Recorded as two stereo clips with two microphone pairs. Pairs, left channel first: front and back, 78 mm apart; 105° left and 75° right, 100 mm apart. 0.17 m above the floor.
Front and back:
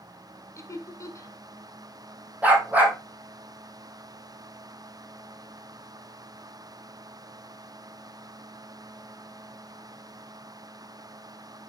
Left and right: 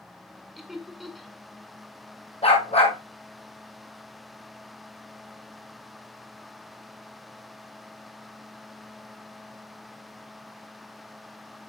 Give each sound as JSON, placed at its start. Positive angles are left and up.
{"t": 0.6, "sound": "laughter", "azimuth_deg": 15, "distance_m": 1.9}
{"t": 2.4, "sound": "a dog barking", "azimuth_deg": 115, "distance_m": 2.5}